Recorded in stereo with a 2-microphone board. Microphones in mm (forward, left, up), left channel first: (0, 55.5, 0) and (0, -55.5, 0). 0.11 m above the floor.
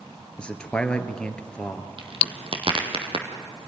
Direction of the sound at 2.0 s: 55° right (ahead or behind).